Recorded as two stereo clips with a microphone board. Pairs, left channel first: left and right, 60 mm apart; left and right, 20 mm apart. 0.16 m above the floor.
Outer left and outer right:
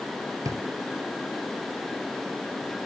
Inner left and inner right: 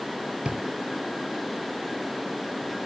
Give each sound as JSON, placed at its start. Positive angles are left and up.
{"t": 0.5, "sound": "a drawer", "side_deg": -70, "distance_m": 0.8}